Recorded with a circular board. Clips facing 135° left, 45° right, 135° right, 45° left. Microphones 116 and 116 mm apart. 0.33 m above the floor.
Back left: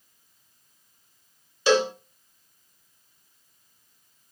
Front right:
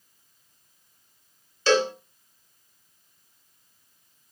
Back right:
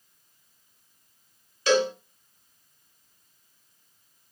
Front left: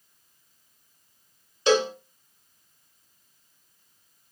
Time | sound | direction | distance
1.7 | a cowbell | 75° left | 0.8 m